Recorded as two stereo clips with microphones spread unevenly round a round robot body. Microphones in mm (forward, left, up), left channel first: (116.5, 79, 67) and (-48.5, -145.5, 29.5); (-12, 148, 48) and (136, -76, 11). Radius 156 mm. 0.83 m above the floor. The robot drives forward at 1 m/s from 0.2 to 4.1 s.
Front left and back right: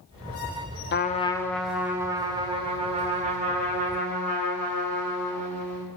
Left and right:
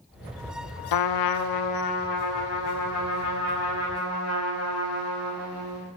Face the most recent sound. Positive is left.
turn(degrees=170)